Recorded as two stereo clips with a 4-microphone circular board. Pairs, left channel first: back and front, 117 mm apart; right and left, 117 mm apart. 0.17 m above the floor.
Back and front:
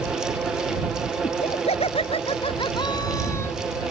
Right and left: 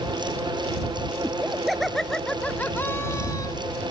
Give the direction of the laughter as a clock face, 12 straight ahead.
6 o'clock.